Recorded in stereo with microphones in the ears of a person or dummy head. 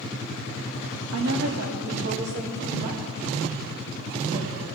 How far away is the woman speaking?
About 1.5 m.